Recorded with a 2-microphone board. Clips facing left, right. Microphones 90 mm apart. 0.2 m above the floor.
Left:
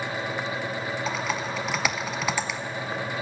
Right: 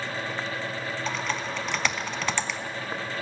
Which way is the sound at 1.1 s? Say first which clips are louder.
Even; 5° left (ahead or behind).